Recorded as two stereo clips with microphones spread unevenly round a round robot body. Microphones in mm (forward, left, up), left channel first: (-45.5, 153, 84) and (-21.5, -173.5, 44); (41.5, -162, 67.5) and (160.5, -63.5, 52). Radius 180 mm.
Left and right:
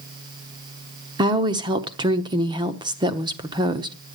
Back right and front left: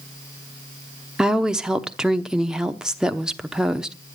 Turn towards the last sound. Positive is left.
turn(degrees=-35)